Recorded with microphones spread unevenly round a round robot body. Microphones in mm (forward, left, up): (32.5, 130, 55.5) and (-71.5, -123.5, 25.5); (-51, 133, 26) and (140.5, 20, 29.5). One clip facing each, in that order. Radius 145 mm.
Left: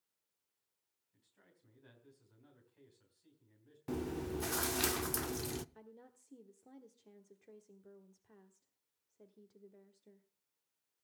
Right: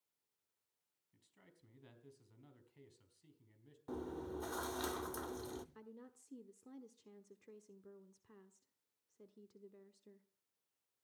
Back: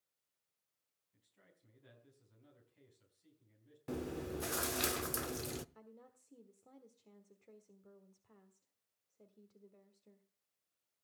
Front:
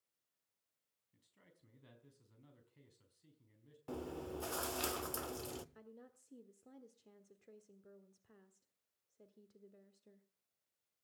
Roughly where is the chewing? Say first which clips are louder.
Left 5 dB, back 3 dB; left.